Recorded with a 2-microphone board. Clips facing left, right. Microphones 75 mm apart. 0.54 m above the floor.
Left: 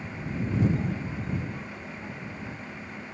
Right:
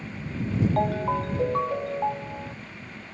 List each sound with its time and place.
0.8 s a ringtone: 75° right (ahead or behind)